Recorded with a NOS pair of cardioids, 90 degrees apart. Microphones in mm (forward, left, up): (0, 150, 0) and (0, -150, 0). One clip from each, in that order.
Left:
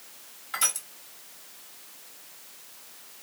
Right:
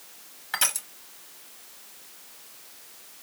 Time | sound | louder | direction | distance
0.5 | crushing | right 2 dB | 30° right | 1.1 m